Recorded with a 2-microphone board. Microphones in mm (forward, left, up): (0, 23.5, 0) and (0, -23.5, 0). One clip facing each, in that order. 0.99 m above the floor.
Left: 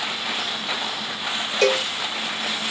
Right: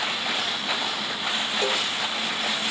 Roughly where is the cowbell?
Left.